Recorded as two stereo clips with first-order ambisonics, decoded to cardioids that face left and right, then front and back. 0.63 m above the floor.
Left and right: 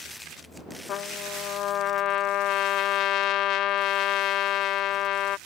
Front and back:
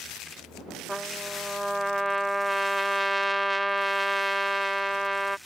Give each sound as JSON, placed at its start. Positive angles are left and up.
{"t": 0.9, "sound": "a trumpet", "azimuth_deg": 95}